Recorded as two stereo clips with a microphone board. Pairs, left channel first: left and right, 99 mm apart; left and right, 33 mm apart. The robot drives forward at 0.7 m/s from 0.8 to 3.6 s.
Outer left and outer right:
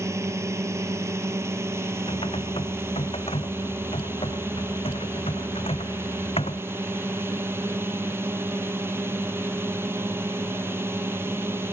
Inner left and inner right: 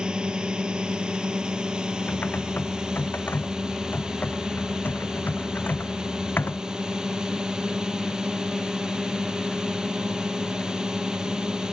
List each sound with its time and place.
0.0 s a drone: 30° right (ahead or behind); by 11.7 s 25° right (ahead or behind)
2.1 s typing on a keyboard: 65° left (ahead or behind); by 6.6 s 75° left (ahead or behind)